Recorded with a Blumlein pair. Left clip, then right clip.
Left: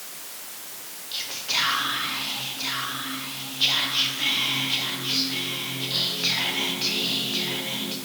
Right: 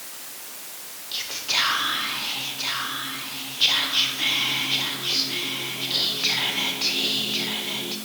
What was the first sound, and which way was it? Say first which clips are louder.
Whispering: right 2 dB; 5° right.